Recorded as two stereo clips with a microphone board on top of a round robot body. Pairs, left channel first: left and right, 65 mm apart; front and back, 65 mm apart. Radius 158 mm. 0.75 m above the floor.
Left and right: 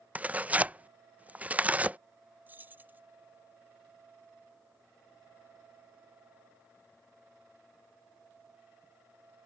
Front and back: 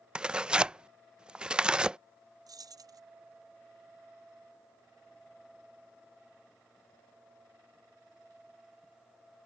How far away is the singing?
I don't hear singing.